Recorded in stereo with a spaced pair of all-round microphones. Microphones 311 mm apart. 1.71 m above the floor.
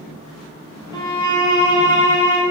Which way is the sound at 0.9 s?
15° left (ahead or behind).